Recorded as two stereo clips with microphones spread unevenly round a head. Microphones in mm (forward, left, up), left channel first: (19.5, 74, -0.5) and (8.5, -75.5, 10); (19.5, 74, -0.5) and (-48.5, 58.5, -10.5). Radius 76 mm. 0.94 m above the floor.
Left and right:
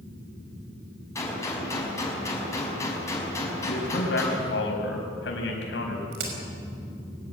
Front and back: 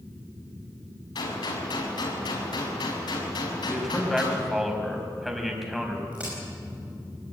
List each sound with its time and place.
1.1 s a gunshot: 15° left, 5.5 m
3.6 s a man speaking: 105° left, 5 m
6.1 s a crack: 85° right, 5 m